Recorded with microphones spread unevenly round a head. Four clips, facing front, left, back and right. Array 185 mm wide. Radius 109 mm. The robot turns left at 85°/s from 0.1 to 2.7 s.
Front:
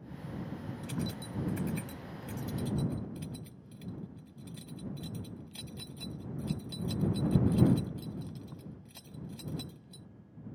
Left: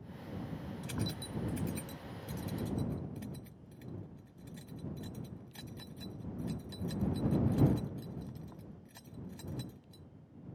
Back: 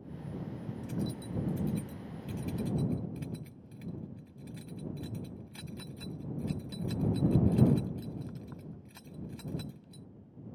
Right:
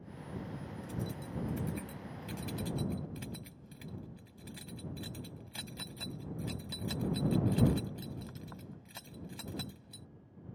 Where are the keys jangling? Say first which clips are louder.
Left 2 dB, back 2 dB; 65° left; by 10.1 s 95° right.